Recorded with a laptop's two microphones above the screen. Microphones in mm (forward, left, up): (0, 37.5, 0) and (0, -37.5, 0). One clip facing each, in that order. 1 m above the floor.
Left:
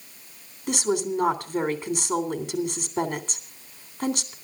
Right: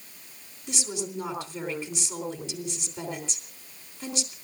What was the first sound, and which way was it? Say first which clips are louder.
A woman speaking: left 9 dB; 55° left (ahead or behind).